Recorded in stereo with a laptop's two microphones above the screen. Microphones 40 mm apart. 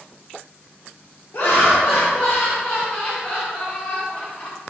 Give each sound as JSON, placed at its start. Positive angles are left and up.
{"t": 1.3, "sound": "laughter", "side_deg": 50, "distance_m": 0.6}